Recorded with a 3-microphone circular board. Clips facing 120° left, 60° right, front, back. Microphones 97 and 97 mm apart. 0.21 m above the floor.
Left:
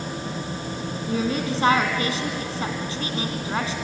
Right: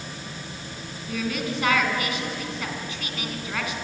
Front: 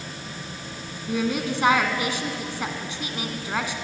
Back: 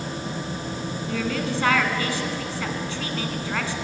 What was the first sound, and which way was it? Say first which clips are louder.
A woman speaking: left 4 dB, front 2 dB; 70° left.